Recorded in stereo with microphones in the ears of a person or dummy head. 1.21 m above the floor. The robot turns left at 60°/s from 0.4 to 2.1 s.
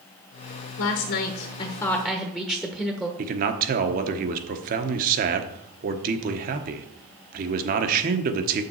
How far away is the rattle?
No rattle in this recording.